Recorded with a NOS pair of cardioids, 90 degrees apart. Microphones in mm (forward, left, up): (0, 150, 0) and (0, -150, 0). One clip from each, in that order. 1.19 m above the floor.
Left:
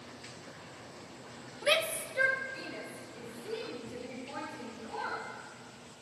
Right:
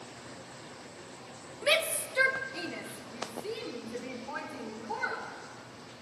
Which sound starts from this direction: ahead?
A shout, at 1.6 s.